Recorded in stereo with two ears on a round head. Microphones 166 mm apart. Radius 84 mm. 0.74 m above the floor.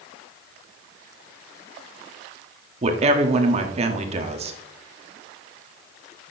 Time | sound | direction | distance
2.8 | a woman speaking | 35° right (ahead or behind) | 1.4 m